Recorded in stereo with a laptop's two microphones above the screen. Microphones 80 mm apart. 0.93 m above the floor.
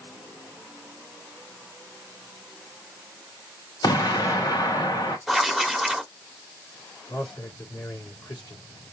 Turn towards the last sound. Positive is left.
turn(degrees=70)  # may be behind; listen again after turning